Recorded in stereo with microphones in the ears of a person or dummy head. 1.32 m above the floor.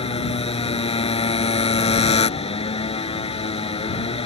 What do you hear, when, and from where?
0.0 s a motorcycle: 30° left (ahead or behind)